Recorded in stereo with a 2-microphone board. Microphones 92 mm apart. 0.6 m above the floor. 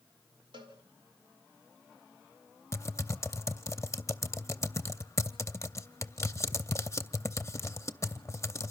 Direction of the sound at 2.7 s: 30° left (ahead or behind).